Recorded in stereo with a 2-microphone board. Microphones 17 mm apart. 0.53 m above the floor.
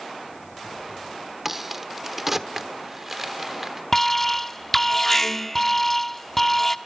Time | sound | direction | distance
1.4 | a crack | 15° right (ahead or behind) | 1.0 m
3.9 | an alarm | 15° left (ahead or behind) | 0.9 m